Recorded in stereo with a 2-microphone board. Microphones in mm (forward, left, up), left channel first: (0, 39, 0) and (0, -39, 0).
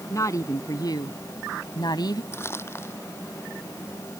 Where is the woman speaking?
40° left (ahead or behind); by 2.2 s 60° left (ahead or behind).